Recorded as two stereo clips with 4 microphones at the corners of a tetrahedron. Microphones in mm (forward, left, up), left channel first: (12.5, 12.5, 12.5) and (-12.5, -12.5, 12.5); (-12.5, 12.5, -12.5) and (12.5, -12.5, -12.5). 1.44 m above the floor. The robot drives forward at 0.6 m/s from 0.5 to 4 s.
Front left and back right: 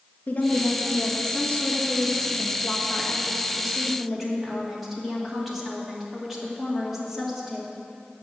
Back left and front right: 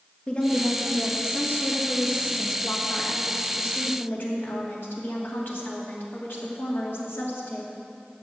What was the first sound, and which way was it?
A woman speaking, 80° left.